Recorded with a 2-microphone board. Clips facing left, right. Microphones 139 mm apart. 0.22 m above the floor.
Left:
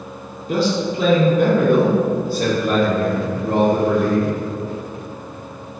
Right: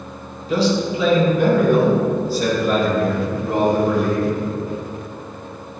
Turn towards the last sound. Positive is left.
turn(degrees=55)  # may be behind; listen again after turning